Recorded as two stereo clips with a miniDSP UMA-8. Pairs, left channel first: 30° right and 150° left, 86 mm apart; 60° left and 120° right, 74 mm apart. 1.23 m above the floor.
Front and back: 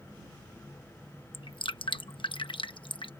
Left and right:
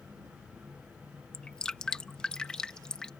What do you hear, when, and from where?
1.3 s dripping: 20° right